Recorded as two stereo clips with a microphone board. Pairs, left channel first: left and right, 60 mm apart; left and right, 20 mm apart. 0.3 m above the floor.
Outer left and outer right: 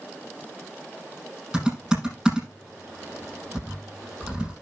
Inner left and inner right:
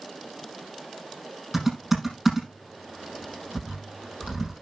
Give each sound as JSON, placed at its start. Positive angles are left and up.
{"t": 1.5, "sound": "typing on a keyboard", "side_deg": -10, "distance_m": 7.0}